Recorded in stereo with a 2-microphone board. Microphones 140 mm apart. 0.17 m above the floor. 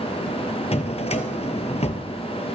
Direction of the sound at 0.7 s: 50° left (ahead or behind).